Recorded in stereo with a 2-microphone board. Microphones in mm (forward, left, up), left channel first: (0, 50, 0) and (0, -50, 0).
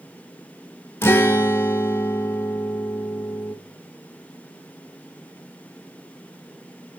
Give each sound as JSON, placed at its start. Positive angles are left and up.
{"t": 1.0, "sound": "a guitar", "side_deg": 25, "distance_m": 0.9}